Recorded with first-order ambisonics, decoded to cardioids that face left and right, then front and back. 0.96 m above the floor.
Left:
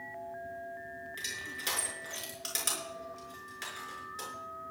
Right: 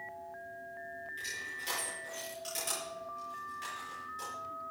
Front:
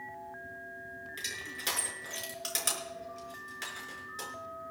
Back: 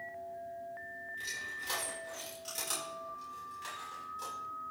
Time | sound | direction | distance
1.2 | crushing | 35° left | 8.5 m